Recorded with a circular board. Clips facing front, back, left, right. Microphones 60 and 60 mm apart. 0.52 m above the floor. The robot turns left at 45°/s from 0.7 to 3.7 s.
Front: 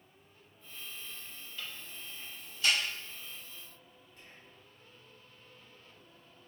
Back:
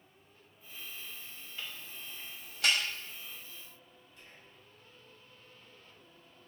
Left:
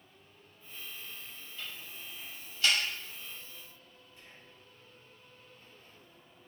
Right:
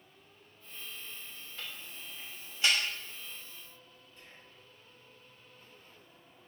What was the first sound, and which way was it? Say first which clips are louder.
Ticking: back 1 dB, even; 110° right.